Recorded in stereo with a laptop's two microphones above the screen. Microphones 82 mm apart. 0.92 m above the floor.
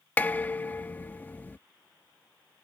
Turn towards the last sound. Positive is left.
turn(degrees=20)  # may be behind; listen again after turning